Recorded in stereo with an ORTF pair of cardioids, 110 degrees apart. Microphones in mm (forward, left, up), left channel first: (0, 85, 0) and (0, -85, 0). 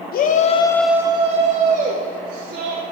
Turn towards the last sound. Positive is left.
turn(degrees=-65)